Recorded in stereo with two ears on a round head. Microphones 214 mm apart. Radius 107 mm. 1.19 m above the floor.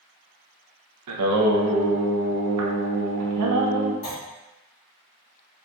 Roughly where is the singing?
Right.